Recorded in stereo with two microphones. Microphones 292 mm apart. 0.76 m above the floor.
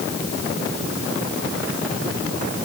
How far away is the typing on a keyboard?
No typing on a keyboard in this recording.